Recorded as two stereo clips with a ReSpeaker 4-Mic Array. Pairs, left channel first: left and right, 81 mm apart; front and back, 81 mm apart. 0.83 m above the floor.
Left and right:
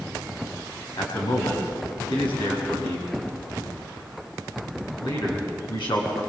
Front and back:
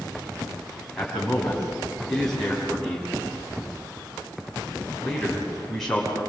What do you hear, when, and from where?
1.0 s a man speaking: 85° left, 5.5 m